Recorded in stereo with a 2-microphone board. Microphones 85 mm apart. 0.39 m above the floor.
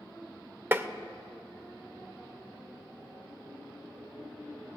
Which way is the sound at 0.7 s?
25° right (ahead or behind).